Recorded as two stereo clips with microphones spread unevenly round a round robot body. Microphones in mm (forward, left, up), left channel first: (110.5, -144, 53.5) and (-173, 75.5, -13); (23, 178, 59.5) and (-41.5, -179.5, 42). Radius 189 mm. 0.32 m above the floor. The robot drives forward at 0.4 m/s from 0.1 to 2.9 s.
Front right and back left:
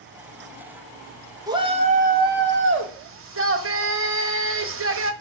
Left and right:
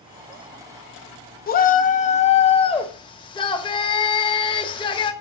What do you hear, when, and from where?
1.5 s a shout: 115° left, 0.9 m; by 5.1 s 155° left, 1.2 m